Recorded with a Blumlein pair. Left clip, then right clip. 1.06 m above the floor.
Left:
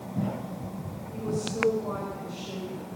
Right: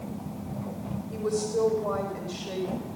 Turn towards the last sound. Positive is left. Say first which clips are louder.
# right 4 dB
turn(degrees=-25)